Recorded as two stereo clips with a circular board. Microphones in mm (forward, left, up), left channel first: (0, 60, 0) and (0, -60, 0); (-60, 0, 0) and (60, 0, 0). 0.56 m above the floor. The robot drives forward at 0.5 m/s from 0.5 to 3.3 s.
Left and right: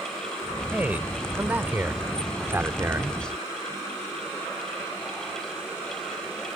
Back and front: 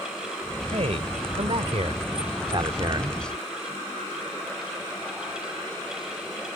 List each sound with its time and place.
0.7 s a man speaking: 15° right; by 3.2 s 35° right